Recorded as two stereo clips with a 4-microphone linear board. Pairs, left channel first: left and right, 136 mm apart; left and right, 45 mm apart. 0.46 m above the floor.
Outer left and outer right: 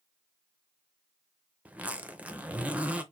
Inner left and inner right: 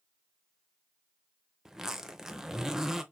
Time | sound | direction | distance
1.6 | a zipper | 10° right (ahead or behind) | 0.6 m